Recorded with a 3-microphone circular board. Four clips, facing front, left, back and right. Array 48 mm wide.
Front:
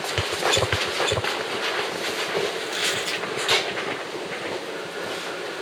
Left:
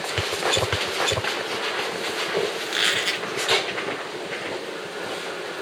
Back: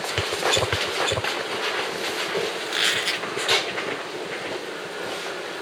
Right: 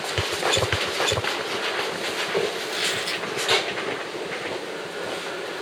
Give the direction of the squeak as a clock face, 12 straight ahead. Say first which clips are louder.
Left 3 dB, back 2 dB; 8 o'clock.